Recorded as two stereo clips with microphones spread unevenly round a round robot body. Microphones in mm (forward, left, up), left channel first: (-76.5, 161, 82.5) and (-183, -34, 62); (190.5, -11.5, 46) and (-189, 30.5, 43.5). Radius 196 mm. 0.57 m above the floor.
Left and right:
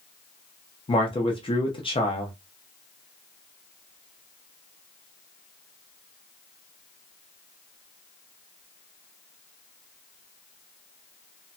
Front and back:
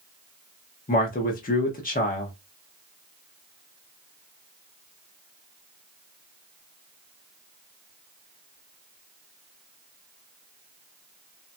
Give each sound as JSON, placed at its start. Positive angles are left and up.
{"t": 0.9, "sound": "a man speaking", "azimuth_deg": 20, "distance_m": 0.8}